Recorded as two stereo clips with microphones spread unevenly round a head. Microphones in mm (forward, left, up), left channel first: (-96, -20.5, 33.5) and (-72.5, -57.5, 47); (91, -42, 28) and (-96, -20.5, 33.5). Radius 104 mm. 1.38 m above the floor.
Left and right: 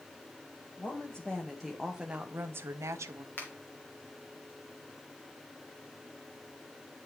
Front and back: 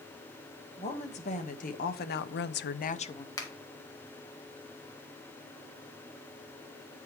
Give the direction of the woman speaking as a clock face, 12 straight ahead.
10 o'clock.